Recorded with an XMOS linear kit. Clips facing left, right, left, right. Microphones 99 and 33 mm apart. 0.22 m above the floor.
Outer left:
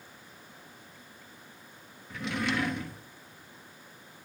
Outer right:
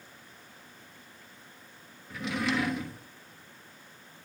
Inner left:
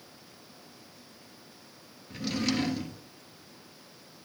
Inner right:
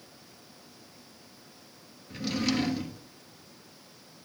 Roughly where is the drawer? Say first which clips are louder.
Outer right 1 dB, inner right 1 dB; centre.